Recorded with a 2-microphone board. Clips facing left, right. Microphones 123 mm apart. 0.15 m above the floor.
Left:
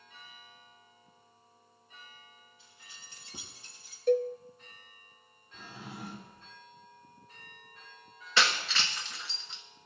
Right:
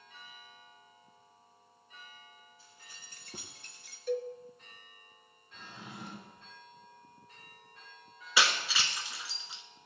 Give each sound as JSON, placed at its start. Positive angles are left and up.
{"t": 2.6, "sound": "keys jangling", "side_deg": -35, "distance_m": 2.5}
{"t": 4.1, "sound": "a cowbell", "side_deg": 50, "distance_m": 0.8}
{"t": 5.5, "sound": "a drawer", "side_deg": 10, "distance_m": 3.5}
{"t": 8.4, "sound": "breaking glass", "side_deg": -10, "distance_m": 1.3}